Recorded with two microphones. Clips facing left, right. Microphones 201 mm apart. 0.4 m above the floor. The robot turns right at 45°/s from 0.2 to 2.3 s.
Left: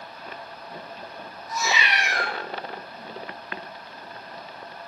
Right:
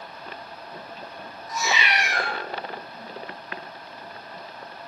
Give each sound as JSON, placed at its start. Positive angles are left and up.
{"t": 1.5, "sound": "a cat meowing", "azimuth_deg": -105, "distance_m": 1.0}